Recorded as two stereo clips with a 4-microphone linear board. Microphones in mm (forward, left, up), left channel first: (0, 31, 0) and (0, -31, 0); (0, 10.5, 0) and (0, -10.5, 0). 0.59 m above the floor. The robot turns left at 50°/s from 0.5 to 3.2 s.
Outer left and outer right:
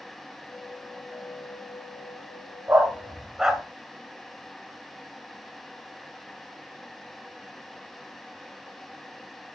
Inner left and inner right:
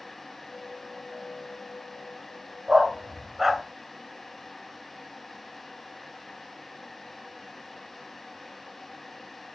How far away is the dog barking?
About 0.9 m.